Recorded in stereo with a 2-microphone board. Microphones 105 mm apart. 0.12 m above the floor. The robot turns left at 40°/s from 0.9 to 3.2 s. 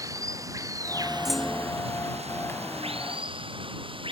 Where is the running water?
30° right; by 4.1 s 125° right.